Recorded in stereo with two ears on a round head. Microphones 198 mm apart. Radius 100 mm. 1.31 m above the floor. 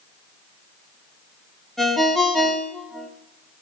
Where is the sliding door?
I don't hear a sliding door.